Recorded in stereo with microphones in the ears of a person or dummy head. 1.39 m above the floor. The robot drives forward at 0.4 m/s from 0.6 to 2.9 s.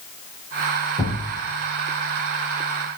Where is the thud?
20° left (ahead or behind), 5 m.